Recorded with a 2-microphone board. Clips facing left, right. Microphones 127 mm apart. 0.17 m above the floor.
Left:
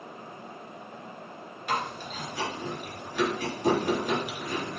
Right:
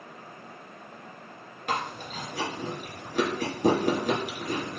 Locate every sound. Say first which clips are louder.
1.7 s chewing: even; 50° right (ahead or behind), 2.0 m